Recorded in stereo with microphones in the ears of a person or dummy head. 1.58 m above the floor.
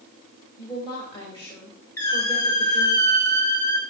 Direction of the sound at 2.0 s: 15° left (ahead or behind).